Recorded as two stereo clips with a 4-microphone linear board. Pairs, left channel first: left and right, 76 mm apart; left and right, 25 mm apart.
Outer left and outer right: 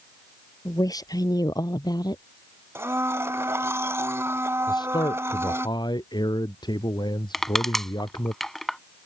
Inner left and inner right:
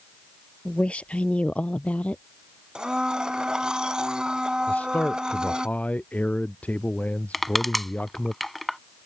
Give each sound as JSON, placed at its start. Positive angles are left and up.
{"t": 0.7, "sound": "a woman speaking", "side_deg": 55}
{"t": 2.8, "sound": "a blender", "side_deg": -35}
{"t": 4.7, "sound": "a man speaking", "side_deg": 70}
{"t": 7.3, "sound": "crushing", "side_deg": 5}